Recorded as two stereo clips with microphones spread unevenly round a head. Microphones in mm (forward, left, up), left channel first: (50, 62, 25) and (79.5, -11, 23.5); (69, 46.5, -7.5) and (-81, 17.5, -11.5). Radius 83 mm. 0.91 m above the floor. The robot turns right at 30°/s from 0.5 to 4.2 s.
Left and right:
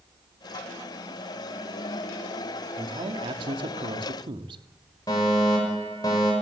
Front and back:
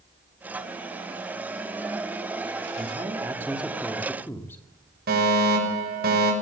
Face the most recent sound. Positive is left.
turn(degrees=170)